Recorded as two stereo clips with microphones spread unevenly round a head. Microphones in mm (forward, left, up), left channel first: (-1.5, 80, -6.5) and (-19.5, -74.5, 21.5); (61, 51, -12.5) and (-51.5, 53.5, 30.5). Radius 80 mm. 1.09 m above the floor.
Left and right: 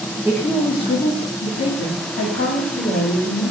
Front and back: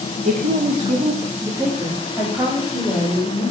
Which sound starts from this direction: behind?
A woman speaking, at 0.2 s.